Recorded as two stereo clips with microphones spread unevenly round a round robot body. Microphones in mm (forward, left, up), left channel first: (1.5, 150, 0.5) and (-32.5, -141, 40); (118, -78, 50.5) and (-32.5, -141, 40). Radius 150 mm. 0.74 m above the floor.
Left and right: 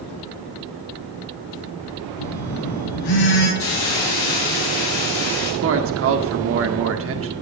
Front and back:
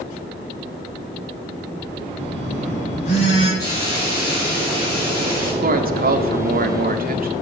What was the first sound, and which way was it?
A phone buzzing, 90° left.